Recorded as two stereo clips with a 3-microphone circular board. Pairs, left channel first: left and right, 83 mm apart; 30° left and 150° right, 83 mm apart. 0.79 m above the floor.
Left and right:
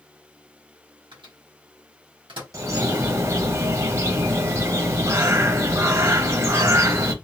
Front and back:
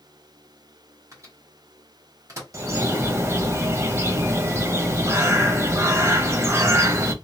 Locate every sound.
1.1 s a microwave: 100° right, 1.4 m
2.5 s a bird: 115° right, 0.7 m